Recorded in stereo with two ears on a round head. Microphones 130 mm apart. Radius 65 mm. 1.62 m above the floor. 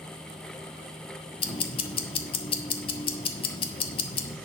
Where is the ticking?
40° left (ahead or behind), 1.4 m.